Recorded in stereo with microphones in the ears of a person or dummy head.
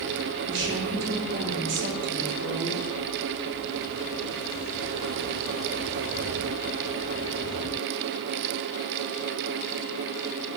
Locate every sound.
0.5 s a woman speaking: 70° right (ahead or behind), 3.5 m